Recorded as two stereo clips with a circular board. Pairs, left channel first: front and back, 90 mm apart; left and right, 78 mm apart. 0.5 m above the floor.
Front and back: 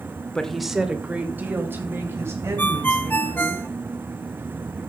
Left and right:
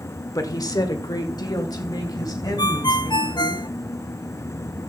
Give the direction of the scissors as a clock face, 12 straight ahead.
I don't hear scissors.